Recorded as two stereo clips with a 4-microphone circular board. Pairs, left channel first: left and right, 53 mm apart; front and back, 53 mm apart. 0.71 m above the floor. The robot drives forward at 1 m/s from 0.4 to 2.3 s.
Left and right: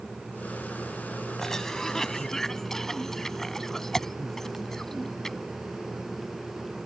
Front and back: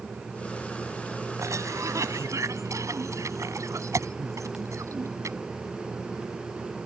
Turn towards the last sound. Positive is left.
turn(degrees=175)